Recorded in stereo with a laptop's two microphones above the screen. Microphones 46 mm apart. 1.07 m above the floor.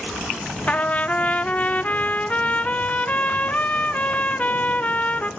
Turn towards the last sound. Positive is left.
turn(degrees=30)  # may be behind; listen again after turning